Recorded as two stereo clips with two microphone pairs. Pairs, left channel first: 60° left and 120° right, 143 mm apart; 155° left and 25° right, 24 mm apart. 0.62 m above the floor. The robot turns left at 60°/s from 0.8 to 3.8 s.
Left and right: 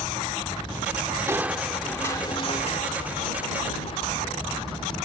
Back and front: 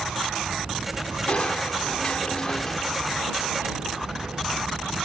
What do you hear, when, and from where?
1.3 s crushing: 175° left; by 4.4 s 25° left